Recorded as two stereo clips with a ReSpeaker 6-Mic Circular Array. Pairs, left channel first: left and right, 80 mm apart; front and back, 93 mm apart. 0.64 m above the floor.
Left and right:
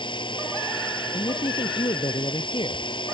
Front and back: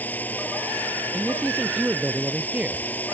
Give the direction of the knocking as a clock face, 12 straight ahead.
No knocking in this recording.